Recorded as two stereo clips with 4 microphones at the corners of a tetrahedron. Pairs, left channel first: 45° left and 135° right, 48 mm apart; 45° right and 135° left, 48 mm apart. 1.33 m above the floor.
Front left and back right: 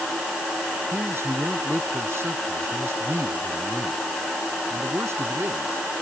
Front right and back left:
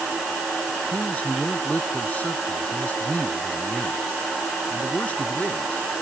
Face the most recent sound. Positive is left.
turn(degrees=-105)